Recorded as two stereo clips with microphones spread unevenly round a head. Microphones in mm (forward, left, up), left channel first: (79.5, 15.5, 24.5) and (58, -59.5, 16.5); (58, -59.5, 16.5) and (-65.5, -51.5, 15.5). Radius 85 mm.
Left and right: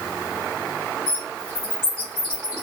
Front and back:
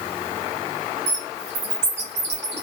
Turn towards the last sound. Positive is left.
turn(degrees=140)